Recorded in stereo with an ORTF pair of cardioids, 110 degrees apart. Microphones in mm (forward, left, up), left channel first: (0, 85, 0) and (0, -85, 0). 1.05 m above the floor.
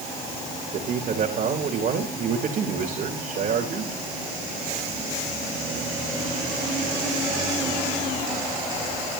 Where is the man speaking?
50° right, 3.5 m.